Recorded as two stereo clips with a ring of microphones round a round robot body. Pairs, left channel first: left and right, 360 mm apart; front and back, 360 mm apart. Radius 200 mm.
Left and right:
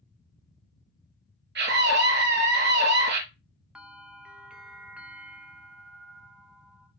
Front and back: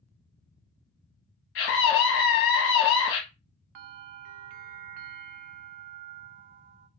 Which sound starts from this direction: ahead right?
A scream, at 1.6 s.